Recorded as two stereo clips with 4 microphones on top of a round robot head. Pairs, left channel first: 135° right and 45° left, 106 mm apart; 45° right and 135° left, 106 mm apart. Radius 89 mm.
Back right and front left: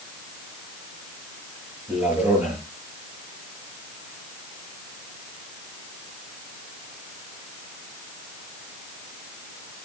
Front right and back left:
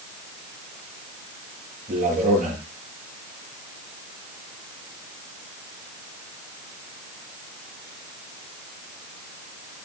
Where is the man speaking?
120° left, 8 m.